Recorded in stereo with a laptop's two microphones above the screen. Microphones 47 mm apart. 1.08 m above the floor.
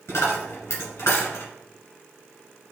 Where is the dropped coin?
65° left (ahead or behind), 2.0 m.